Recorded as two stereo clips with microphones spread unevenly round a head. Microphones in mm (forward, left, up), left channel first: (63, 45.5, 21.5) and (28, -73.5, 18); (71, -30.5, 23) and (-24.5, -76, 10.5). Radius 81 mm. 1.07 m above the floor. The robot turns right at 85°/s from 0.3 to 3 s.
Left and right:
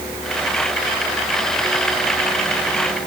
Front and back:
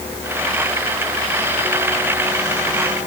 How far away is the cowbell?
I don't hear a cowbell.